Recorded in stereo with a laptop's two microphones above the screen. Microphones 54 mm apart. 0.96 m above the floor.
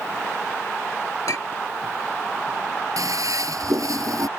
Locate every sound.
1.3 s a clink: 75° left (ahead or behind)
3.0 s a toilet flushing: 75° right (ahead or behind)